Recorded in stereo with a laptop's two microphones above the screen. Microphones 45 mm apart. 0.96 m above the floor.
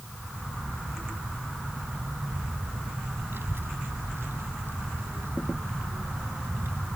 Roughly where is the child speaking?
Right.